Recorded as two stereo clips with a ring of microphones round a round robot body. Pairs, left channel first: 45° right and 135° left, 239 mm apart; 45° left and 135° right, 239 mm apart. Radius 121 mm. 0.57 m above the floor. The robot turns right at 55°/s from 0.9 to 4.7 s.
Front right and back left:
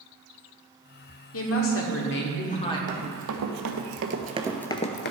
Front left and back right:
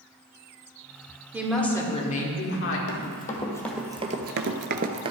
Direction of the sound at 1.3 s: 55° right.